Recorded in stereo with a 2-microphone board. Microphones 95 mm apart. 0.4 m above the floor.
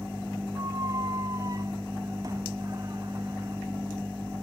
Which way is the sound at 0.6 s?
40° right (ahead or behind).